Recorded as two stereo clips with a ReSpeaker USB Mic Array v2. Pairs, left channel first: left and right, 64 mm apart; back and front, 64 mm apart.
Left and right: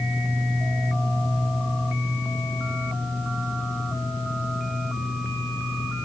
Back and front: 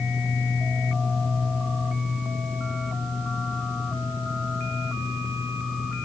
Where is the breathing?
I don't hear breathing.